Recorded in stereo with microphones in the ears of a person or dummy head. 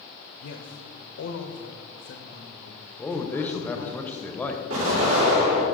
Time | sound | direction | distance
0.4 | a man speaking | 75° left (ahead or behind) | 0.9 m
3.0 | a man speaking | 5° left (ahead or behind) | 0.7 m
4.7 | an explosion | 85° right | 3.5 m